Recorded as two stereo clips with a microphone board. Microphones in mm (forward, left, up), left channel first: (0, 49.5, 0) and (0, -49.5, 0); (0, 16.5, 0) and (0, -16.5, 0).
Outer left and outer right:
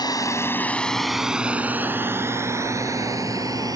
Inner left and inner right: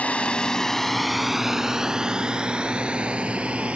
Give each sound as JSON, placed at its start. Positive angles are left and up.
{"t": 0.0, "sound": "a drone", "side_deg": 45}